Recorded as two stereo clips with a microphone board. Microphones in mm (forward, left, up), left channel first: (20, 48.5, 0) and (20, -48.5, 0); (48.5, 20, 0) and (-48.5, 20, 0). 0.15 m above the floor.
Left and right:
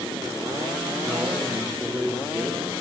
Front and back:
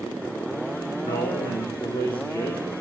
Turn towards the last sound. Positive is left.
turn(degrees=-25)